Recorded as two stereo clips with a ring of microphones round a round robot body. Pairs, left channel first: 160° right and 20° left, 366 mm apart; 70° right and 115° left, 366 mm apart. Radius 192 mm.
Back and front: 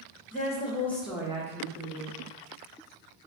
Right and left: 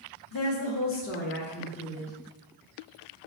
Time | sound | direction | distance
0.3 | a woman speaking | 100° right | 1.0 m